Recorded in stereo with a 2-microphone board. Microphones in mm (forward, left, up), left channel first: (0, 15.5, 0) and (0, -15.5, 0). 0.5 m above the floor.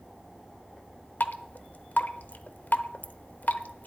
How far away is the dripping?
About 0.6 m.